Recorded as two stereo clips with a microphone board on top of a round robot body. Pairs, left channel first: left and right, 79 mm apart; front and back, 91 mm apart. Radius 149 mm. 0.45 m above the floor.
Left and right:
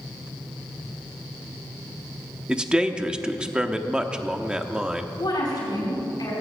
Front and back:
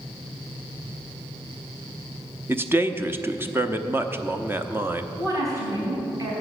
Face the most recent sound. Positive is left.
turn(degrees=125)